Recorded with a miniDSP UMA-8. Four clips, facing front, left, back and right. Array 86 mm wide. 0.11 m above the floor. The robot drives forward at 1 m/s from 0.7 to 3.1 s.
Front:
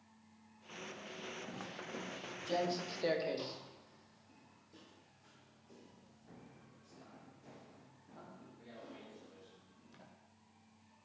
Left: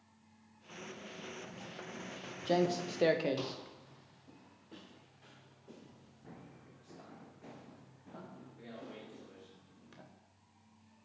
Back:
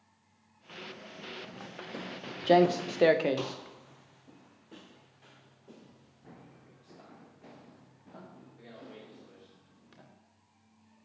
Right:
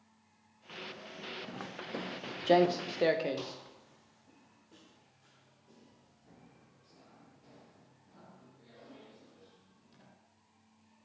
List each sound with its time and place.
1.5 s footsteps: 80° right, 1.7 m; by 10.0 s 135° left, 8 m